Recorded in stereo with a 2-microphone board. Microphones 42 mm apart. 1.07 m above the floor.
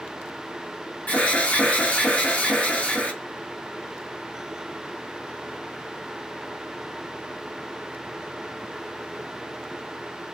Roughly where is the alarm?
Left.